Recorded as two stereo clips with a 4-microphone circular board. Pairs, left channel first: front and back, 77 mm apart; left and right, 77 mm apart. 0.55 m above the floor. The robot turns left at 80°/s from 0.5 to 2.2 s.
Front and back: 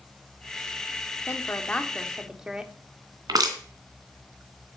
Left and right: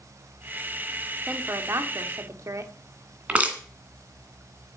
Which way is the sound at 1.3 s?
30° right.